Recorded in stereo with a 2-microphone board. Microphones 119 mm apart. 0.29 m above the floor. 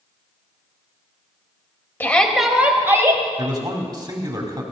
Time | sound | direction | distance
2.0 | a shout | 20° left (ahead or behind) | 1.4 m
3.4 | a man speaking | 35° right (ahead or behind) | 2.5 m